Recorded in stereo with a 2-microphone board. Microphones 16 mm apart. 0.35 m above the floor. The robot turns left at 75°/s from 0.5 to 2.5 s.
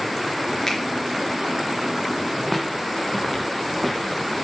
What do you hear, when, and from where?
0.7 s a finger snap: 20° left (ahead or behind), 5.5 m; by 0.8 s 10° left (ahead or behind), 5.5 m
2.4 s footsteps: 5° right (ahead or behind), 3 m; by 4.4 s 15° left (ahead or behind), 4 m